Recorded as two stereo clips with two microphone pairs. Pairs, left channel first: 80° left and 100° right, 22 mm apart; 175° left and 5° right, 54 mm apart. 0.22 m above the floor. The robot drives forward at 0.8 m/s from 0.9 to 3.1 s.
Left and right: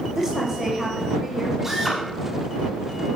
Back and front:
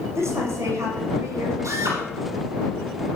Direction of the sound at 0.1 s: 35° right.